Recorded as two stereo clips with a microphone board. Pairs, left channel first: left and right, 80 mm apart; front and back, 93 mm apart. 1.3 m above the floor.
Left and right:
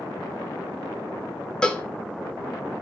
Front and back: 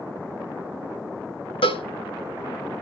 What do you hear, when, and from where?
1.6 s a cowbell: 10° left, 1.3 m